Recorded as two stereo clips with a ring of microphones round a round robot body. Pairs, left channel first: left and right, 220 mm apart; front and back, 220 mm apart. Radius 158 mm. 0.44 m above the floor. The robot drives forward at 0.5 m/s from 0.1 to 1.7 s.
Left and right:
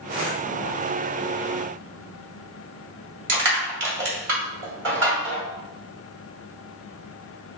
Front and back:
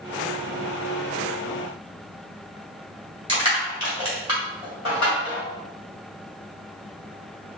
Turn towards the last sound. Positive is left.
turn(degrees=-110)